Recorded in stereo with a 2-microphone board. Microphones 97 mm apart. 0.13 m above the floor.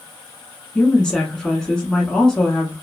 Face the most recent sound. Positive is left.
turn(degrees=10)  # may be behind; listen again after turning